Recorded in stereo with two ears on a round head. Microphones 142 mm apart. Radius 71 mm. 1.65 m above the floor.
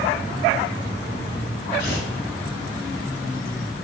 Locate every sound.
1.8 s tearing paper: 65° left (ahead or behind), 3.5 m